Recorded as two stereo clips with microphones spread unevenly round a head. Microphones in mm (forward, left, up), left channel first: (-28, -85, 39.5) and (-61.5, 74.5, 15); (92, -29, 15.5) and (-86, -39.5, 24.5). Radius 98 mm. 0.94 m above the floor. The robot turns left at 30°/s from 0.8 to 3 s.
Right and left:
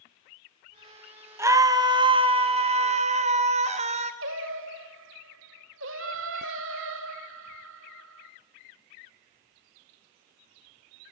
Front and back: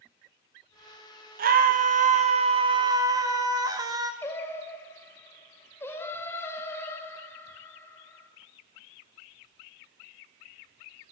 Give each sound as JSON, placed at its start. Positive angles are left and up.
{"t": 1.4, "sound": "a scream", "azimuth_deg": 165, "distance_m": 1.2}
{"t": 4.2, "sound": "singing", "azimuth_deg": 85, "distance_m": 1.4}